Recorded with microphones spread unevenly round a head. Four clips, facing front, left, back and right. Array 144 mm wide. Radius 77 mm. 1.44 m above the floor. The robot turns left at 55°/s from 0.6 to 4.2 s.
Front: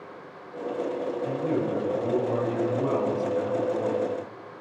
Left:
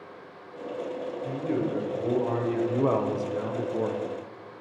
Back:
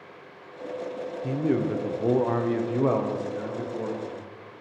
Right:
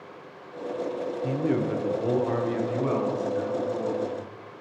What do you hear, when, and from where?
1.2 s a man speaking: 130° right, 1.0 m; by 4.1 s 70° left, 1.0 m